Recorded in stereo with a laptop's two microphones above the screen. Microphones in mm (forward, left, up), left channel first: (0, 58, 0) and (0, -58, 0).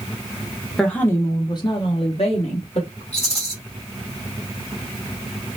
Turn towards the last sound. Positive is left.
turn(degrees=70)  # may be behind; listen again after turning